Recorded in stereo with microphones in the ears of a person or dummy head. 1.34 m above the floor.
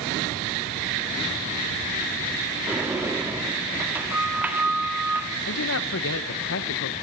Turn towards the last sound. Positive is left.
turn(degrees=70)  # may be behind; listen again after turning